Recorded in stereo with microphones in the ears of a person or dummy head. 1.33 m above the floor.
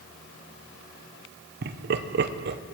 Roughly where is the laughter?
Right.